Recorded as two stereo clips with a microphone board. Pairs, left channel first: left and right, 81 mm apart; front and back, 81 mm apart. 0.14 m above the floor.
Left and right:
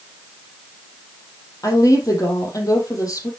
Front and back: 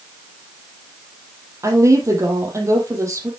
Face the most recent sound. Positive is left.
turn(degrees=130)